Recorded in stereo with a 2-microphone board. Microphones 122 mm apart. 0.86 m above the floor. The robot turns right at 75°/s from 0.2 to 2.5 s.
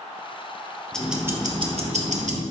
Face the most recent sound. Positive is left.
turn(degrees=-70)